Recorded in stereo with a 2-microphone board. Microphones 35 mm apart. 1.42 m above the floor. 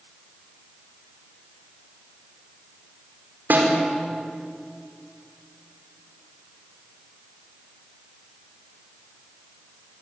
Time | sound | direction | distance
3.5 | a snare drum | 70° right (ahead or behind) | 5.5 m